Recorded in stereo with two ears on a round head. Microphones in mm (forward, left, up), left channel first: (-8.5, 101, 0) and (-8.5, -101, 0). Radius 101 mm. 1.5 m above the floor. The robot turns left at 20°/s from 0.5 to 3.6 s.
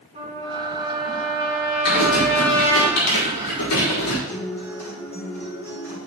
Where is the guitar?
10° left (ahead or behind), 3 m.